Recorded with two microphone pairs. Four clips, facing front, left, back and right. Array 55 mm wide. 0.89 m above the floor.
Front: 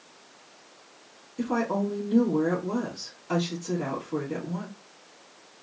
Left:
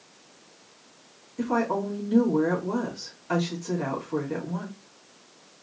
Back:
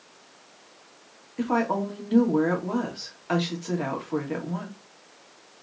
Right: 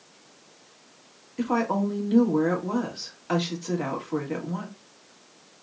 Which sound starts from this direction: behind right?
A woman speaking, at 1.4 s.